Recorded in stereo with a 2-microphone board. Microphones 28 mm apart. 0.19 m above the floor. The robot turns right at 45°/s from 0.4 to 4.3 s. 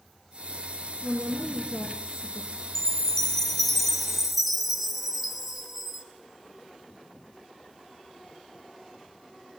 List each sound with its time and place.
1.0 s a woman speaking: 110° right, 1.9 m; by 2.6 s 40° right, 1.9 m
2.8 s a chime: 20° left (ahead or behind), 0.9 m; by 6.0 s 5° right (ahead or behind), 0.9 m